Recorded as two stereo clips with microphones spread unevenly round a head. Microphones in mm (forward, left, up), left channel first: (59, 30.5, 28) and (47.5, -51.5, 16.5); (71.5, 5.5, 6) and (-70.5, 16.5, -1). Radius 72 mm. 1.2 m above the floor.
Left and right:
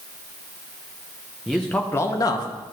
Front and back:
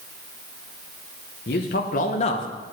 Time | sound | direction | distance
1.5 | a man speaking | 10° right | 1.0 m